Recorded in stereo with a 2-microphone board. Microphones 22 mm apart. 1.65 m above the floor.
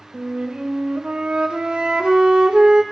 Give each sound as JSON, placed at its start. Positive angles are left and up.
{"t": 0.1, "sound": "a flute", "side_deg": -55, "distance_m": 1.0}